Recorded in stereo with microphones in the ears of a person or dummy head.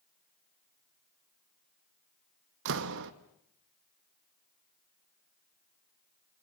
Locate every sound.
2.6 s a door slam: 70° right (ahead or behind), 1.3 m